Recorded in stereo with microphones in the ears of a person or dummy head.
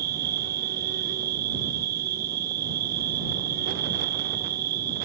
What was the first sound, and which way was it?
An insect, 50° right (ahead or behind).